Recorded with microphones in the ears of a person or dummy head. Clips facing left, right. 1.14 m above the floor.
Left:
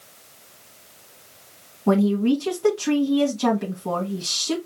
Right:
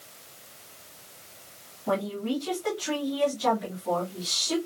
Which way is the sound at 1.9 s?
80° left.